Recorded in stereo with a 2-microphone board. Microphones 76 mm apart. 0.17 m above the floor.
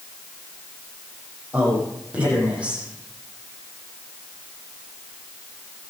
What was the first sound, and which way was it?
A man speaking, 15° right (ahead or behind).